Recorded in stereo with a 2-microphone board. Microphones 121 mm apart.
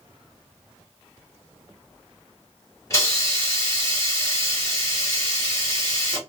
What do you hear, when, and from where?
2.9 s a hiss: 25° left (ahead or behind), 1.6 m